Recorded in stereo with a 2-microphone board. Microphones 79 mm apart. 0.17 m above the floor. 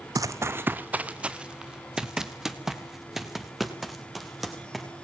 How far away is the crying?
I don't hear crying.